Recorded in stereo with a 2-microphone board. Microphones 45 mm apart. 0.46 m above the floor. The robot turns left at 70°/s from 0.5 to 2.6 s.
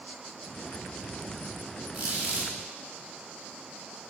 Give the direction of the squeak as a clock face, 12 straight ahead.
2 o'clock.